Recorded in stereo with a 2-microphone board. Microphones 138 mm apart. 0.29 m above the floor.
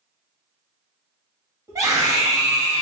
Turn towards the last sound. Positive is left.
turn(degrees=-20)  # may be behind; listen again after turning